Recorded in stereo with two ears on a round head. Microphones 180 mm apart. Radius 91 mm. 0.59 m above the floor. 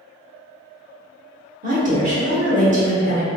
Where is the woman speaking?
40° right (ahead or behind), 1.0 m.